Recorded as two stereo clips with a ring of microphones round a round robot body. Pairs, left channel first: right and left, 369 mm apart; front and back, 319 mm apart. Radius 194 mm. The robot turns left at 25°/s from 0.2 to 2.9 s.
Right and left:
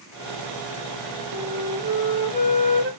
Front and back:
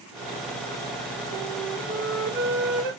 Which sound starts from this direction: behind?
A flute, at 1.3 s.